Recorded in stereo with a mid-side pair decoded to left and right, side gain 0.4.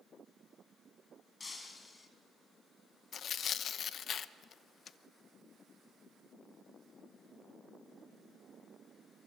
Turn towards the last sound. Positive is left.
turn(degrees=60)